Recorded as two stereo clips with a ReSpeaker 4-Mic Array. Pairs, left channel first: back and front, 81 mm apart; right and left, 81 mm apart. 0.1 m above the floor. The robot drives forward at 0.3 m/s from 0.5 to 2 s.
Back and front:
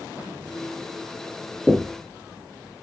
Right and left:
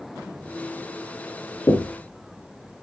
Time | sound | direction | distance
1.7 | knocking | 80° right | 1.6 m